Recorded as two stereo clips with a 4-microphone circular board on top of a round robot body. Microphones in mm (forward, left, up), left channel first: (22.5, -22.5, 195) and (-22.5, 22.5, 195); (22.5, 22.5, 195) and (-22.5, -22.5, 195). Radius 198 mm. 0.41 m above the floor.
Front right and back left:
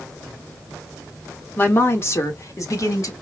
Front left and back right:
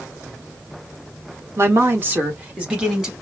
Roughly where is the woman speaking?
Right.